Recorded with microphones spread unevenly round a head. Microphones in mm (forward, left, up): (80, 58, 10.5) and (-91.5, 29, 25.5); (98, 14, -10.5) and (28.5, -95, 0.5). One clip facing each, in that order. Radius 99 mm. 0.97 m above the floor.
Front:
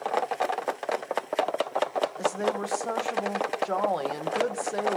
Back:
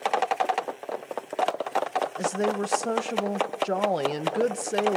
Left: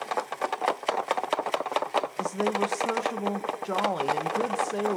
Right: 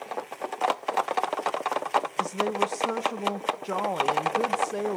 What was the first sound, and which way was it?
A woman speaking, 140° left.